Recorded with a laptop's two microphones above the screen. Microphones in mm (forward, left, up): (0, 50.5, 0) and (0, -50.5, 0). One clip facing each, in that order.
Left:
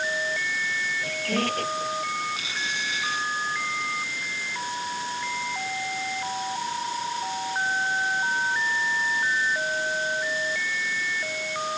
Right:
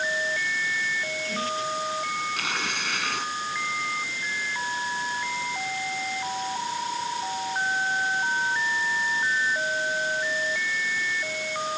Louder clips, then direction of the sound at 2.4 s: Right 2 dB; 65° right (ahead or behind).